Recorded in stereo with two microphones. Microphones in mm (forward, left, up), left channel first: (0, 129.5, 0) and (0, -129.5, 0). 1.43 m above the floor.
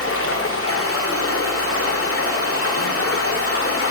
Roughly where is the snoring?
No snoring in this recording.